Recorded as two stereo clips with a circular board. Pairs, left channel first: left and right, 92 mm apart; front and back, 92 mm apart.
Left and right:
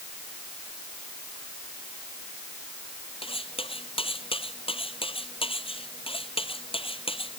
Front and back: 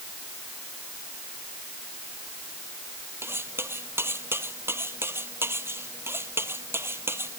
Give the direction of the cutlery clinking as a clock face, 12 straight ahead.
8 o'clock.